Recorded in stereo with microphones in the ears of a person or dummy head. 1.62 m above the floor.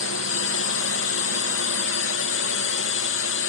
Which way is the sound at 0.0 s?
60° left (ahead or behind).